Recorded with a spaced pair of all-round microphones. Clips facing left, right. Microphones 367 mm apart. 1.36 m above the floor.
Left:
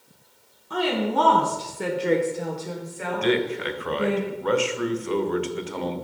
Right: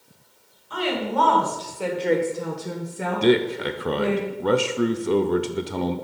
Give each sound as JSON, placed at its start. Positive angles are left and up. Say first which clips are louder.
{"t": 0.7, "sound": "a woman speaking", "louder": "left 2 dB", "side_deg": 55, "distance_m": 1.9}
{"t": 3.2, "sound": "a man speaking", "louder": "right 4 dB", "side_deg": -50, "distance_m": 0.5}